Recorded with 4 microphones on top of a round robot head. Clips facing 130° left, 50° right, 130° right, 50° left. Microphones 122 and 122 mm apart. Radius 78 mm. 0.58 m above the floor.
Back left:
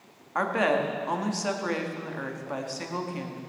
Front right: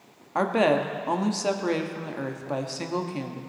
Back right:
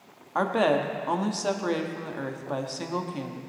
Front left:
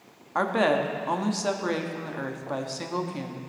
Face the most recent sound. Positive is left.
turn(degrees=-50)